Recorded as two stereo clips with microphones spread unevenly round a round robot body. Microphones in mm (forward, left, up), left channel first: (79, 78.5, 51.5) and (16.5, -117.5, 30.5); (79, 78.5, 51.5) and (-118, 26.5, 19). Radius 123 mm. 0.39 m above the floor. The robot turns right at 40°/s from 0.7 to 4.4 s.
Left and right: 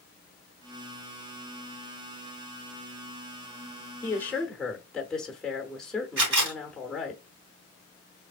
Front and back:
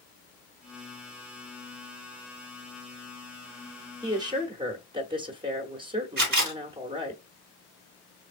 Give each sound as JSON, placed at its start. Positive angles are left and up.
{"t": 4.0, "sound": "a woman speaking", "azimuth_deg": 150, "distance_m": 1.0}
{"t": 6.2, "sound": "a camera shutter", "azimuth_deg": -130, "distance_m": 2.5}